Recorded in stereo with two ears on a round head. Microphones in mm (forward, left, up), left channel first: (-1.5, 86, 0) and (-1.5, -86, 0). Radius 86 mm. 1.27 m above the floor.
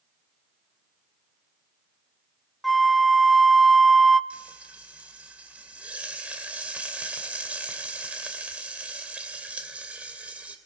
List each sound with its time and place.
2.6 s a flute: centre (ahead or behind), 0.5 m
4.3 s frying: 5° right (ahead or behind), 2.5 m